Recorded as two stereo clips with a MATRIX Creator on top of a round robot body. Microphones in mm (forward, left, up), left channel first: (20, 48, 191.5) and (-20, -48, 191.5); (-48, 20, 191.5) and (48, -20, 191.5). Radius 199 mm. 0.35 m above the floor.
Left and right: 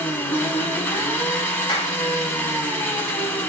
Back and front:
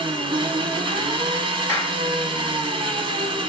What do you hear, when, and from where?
0.0 s an engine running: 5° left, 1.1 m
1.7 s a clap: 85° left, 1.6 m